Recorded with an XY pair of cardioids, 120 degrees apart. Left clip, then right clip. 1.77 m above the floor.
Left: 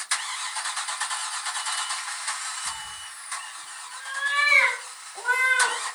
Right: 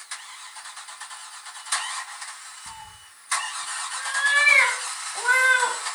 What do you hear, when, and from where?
2.7 s a cat meowing: 20° right, 5.5 m; by 5.8 s 40° right, 5.5 m